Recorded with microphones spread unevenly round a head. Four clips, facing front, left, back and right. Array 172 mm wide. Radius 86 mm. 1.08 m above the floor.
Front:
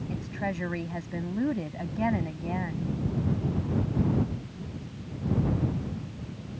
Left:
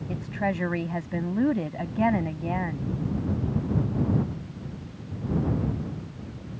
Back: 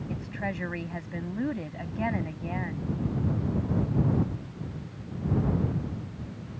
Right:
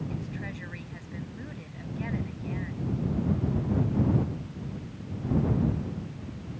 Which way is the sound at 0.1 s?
80° left.